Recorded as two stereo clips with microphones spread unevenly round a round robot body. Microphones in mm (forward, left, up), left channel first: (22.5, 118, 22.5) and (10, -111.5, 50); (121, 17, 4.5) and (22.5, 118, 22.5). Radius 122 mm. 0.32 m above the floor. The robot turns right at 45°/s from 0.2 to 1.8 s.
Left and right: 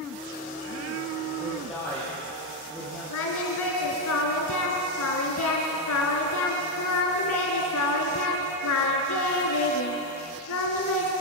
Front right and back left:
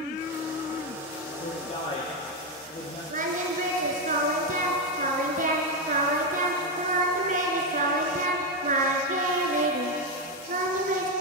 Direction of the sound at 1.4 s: 20° right.